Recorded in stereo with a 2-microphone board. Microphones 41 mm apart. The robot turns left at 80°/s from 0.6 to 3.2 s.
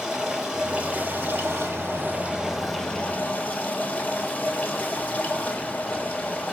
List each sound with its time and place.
0.0 s running water: 15° right, 1.3 m; by 6.5 s 140° left, 1.3 m